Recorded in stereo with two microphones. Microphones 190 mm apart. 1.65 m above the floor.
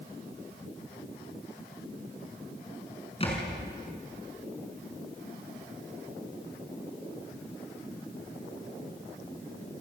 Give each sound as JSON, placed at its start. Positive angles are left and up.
{"t": 3.2, "sound": "a thud", "side_deg": 30, "distance_m": 5.0}